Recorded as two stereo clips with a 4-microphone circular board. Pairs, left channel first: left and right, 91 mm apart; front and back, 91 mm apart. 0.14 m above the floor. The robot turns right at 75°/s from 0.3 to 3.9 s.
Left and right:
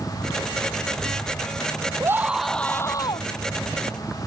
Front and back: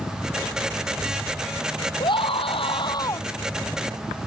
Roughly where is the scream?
Ahead right.